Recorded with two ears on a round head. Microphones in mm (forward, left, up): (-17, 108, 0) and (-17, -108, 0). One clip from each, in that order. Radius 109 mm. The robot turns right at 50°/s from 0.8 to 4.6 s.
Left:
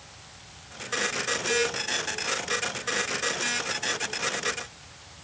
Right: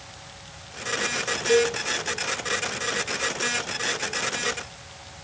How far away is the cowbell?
About 3 m.